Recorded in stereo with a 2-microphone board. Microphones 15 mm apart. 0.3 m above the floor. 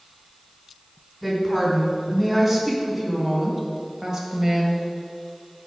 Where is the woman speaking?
20° right (ahead or behind), 3 m; by 4.8 s 40° right (ahead or behind), 1.7 m.